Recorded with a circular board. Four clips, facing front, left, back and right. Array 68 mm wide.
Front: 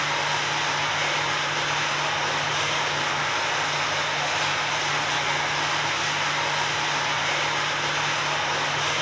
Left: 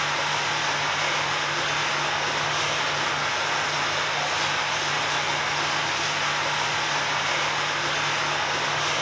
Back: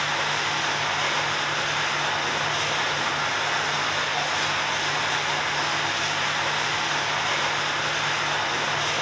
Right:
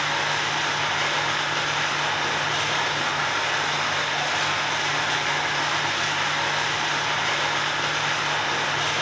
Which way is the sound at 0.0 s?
105° right.